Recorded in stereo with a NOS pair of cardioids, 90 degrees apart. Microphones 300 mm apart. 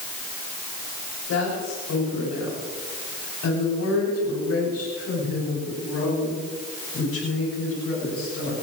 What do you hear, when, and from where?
1.3 s a woman speaking: 60° left, 9 m; by 8.5 s 50° left, 12.5 m